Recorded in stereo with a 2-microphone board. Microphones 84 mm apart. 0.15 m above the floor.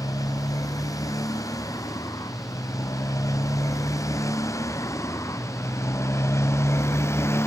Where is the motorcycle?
45° left (ahead or behind); by 7.5 s 35° left (ahead or behind).